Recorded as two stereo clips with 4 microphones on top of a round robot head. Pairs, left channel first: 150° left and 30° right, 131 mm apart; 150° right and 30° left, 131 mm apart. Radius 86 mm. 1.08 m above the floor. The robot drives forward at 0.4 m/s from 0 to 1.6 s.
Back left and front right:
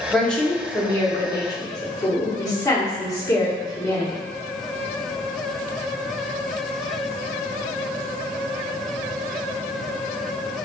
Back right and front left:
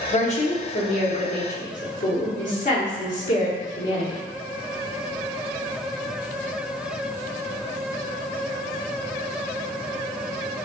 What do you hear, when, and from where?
0.1 s a woman speaking: 125° right, 0.9 m; by 4.2 s 150° right, 1.3 m